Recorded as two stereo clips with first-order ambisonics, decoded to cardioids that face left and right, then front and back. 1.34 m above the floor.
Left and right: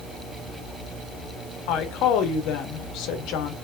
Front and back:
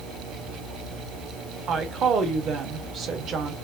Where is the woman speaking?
120° left, 1.0 m.